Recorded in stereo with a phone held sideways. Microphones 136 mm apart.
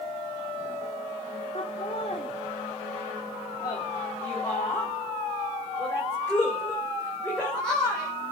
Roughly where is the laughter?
Left.